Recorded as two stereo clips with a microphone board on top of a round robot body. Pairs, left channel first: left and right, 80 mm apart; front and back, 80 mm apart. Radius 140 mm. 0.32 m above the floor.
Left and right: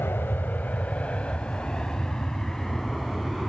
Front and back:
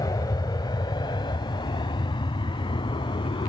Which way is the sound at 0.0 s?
30° left.